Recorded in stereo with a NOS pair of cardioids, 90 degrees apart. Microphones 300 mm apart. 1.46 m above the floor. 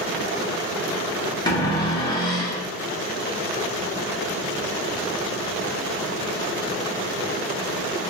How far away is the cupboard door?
About 0.7 m.